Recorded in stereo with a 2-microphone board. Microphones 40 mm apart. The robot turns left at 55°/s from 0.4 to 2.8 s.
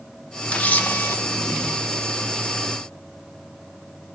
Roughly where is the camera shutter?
Behind left.